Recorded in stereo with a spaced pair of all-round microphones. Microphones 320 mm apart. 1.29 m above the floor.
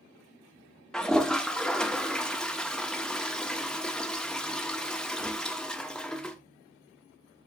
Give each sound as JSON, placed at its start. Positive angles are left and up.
{"t": 0.9, "sound": "a toilet flushing", "side_deg": 5, "distance_m": 0.9}